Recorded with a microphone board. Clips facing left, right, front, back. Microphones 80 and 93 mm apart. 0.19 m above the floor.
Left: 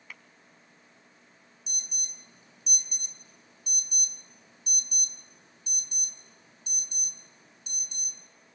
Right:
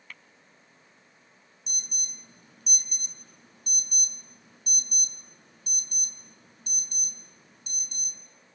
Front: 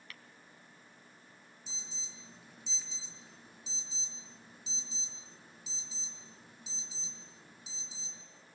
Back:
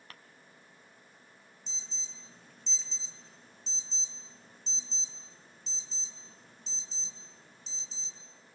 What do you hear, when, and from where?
0.1 s tapping: 170° left, 0.9 m
1.7 s an alarm: 80° right, 3.5 m